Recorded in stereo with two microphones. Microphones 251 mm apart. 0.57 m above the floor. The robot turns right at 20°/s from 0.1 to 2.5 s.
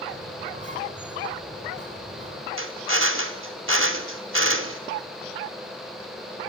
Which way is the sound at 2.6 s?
55° right (ahead or behind).